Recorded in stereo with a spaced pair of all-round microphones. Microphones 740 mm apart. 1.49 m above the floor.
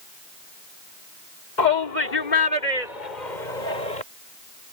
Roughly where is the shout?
Left.